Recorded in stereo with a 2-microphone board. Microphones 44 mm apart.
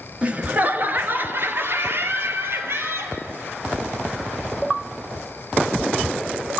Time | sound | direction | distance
0.2 | laughter | 25° right (ahead or behind) | 1.3 m